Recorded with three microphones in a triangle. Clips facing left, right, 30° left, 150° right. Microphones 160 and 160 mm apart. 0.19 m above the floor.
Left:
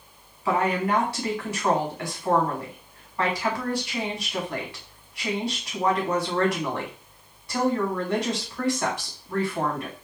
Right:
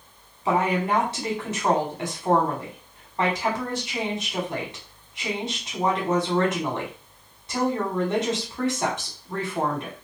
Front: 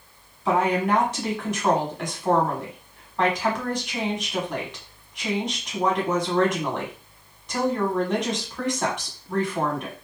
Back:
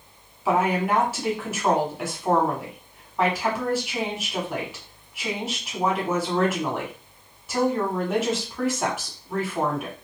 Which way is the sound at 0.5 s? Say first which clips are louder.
Right 1 dB, even; 75° right.